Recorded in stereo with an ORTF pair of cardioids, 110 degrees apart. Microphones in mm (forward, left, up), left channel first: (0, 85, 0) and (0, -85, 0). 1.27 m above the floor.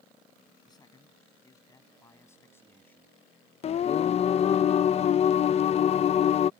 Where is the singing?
40° left.